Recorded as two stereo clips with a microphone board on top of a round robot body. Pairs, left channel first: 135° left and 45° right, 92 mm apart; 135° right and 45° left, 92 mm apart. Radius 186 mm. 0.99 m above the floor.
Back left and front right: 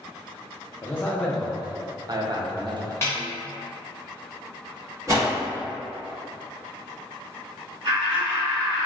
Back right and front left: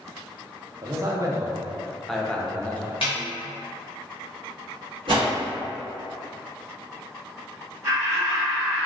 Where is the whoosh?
15° left, 0.6 m.